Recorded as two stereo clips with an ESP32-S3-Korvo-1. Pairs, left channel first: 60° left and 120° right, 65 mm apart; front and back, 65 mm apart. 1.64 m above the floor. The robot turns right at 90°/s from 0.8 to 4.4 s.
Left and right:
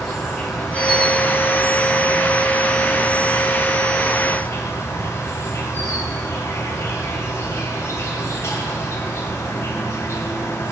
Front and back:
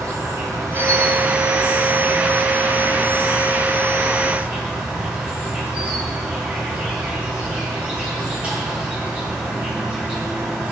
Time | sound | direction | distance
0.0 | an insect | 145° left | 8 m